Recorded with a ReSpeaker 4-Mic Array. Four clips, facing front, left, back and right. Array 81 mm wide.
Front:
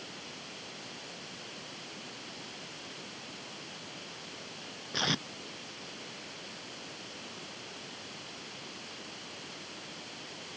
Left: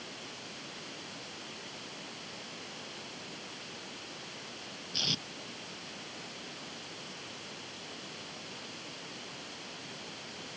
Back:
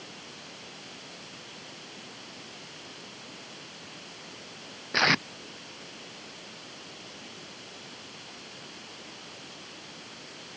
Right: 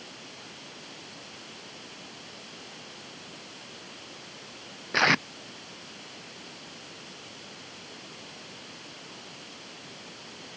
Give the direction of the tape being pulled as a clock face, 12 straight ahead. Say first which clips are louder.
Right 17 dB, back 9 dB; 4 o'clock.